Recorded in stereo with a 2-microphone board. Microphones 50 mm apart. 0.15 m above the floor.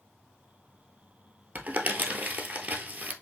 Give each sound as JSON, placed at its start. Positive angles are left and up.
{"t": 1.6, "sound": "crumpling", "side_deg": -40, "distance_m": 1.1}